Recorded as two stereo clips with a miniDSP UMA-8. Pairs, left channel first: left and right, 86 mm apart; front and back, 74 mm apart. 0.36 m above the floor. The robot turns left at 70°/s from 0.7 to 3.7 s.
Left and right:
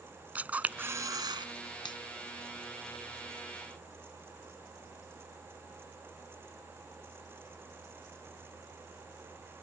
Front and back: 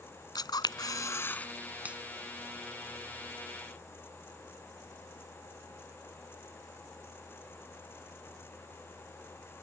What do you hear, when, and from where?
0.3 s a camera shutter: 20° right; by 1.5 s 70° right
1.9 s a finger snap: 110° left; by 2.0 s 100° left